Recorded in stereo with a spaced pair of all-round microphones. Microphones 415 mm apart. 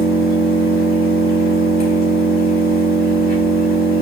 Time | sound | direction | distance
0.0 | an engine running | 20° right (ahead or behind) | 4 m